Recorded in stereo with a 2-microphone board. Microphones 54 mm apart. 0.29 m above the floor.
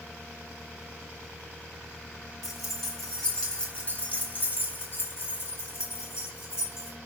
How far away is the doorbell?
No doorbell in this recording.